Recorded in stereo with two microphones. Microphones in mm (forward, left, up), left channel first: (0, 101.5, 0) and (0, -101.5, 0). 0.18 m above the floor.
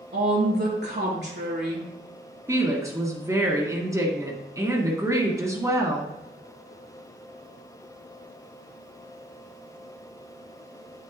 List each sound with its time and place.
0.1 s a woman speaking: 60° right (ahead or behind), 2.5 m
2.5 s a woman speaking: 15° right (ahead or behind), 1.6 m